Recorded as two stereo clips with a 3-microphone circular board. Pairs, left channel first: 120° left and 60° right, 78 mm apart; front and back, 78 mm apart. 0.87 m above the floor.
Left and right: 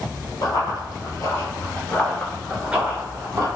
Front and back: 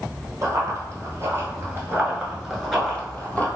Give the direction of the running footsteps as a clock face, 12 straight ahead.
7 o'clock.